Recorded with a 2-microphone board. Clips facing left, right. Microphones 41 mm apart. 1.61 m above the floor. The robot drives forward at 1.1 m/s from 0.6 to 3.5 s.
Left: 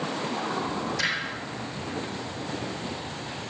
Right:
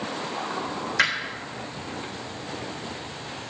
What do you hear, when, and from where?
1.0 s hammering: 50° right (ahead or behind), 4 m; by 1.2 s 45° right (ahead or behind), 4 m